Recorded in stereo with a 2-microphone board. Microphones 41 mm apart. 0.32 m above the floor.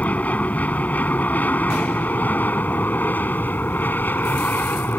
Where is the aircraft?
40° left (ahead or behind); by 5.0 s 55° left (ahead or behind).